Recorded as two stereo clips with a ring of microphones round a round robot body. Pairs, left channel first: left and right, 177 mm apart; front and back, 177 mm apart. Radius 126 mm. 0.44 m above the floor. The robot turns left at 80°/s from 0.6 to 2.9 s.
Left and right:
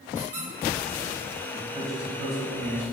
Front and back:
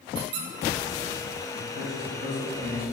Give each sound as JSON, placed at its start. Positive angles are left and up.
{"t": 0.1, "sound": "a squeak", "azimuth_deg": -170, "distance_m": 0.8}
{"t": 1.5, "sound": "a man speaking", "azimuth_deg": 5, "distance_m": 2.0}